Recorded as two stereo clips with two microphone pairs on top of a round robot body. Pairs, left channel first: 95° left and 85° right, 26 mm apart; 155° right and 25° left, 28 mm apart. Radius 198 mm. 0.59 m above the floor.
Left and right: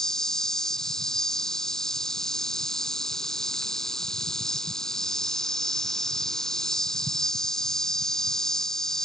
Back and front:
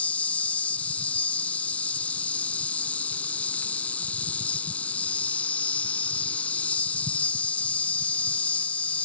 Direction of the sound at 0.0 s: 165° left.